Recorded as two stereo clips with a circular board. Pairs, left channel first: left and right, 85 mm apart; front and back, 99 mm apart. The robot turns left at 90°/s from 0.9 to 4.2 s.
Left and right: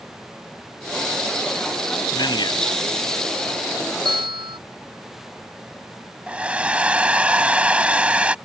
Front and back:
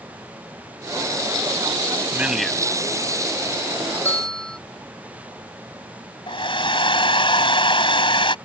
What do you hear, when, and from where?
2.1 s a man speaking: 115° left; by 2.7 s 65° left
4.0 s a bell: 70° right; by 4.6 s 85° right
6.3 s a hair dryer: 15° right